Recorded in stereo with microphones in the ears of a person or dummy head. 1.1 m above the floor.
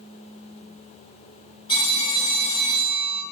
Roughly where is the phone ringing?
Left.